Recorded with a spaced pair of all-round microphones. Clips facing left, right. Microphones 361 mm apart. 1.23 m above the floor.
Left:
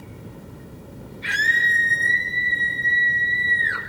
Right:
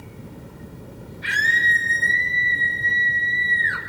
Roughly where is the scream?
Centre.